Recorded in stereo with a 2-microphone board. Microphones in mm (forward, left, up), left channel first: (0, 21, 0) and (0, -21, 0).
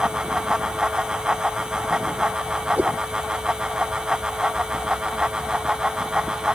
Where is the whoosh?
40° right (ahead or behind).